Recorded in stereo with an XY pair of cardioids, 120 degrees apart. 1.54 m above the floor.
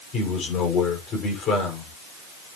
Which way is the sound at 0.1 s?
60° left.